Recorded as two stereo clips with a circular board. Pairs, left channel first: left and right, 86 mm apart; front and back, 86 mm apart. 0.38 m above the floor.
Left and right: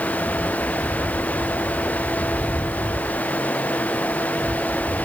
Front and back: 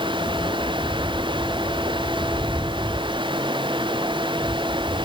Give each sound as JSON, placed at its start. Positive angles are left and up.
{"t": 0.0, "sound": "running water", "azimuth_deg": 165}